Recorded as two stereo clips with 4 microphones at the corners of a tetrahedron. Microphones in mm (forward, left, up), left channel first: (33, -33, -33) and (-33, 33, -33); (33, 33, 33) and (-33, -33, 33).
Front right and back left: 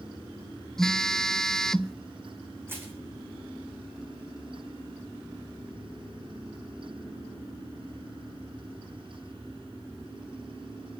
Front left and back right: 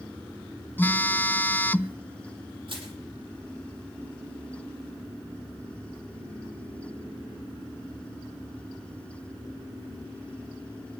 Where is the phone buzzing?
25° left, 0.5 m.